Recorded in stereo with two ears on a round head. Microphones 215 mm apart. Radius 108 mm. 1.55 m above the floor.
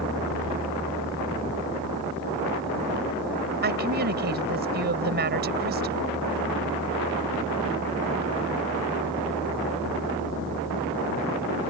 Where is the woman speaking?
40° right (ahead or behind).